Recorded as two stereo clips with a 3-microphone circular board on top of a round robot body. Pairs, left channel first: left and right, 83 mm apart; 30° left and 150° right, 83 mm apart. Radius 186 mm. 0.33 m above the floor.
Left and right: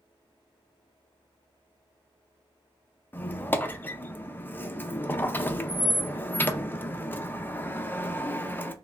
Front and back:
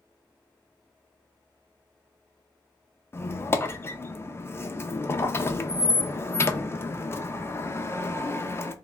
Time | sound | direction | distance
3.1 | a squeak | 50° left | 0.6 m